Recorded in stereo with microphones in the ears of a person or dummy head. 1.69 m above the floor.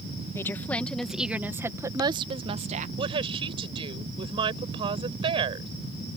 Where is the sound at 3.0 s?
30° right (ahead or behind).